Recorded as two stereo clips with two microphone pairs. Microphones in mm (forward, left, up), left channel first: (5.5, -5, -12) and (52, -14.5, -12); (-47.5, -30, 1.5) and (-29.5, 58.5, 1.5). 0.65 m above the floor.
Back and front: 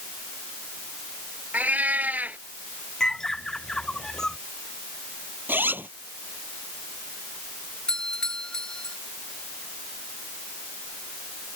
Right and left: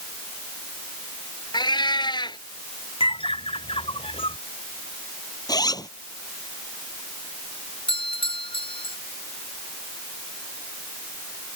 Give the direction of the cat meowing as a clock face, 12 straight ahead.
2 o'clock.